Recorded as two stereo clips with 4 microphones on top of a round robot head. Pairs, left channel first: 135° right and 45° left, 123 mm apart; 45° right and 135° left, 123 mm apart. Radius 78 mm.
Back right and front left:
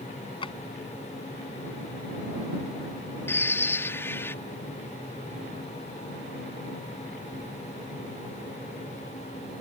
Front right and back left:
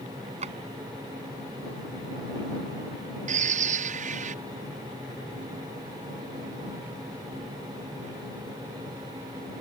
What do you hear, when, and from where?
0.4 s a drawer: 175° left
3.3 s a bird: 155° left